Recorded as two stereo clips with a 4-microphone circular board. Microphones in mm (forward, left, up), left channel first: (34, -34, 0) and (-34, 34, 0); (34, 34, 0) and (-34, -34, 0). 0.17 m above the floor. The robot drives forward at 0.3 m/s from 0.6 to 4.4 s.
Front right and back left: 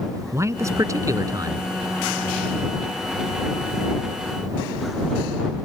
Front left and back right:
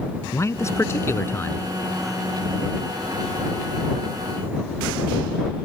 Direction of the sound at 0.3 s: 90° left.